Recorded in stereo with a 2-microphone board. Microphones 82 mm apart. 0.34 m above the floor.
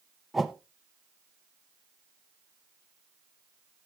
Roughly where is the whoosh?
Centre.